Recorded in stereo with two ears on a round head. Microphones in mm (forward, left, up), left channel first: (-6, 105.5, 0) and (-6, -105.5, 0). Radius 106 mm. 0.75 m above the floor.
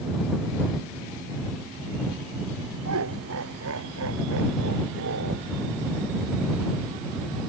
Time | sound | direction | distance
2.8 | laughter | 65° right (ahead or behind) | ?